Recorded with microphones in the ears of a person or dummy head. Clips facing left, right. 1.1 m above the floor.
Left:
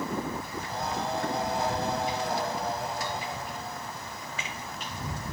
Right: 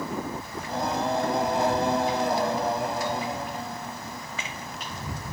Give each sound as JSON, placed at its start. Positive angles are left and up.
{"t": 0.6, "sound": "singing", "side_deg": -70}